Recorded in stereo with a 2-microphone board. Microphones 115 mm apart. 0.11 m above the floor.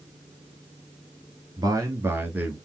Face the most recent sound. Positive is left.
turn(degrees=-10)  # may be behind; listen again after turning